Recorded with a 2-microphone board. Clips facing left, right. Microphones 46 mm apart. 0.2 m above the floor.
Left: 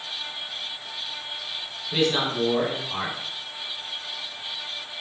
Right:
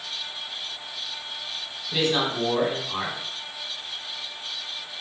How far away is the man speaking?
About 1.1 m.